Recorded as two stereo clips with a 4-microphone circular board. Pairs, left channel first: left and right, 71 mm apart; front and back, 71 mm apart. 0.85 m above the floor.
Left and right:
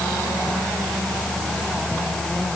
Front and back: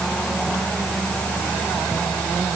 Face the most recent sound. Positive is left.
No sound to turn to.